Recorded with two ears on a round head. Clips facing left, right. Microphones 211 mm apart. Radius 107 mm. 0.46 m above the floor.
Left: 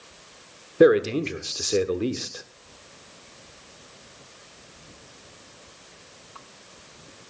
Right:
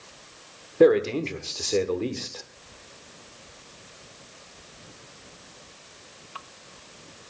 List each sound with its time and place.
0.8 s a man speaking: 15° left (ahead or behind), 1.4 m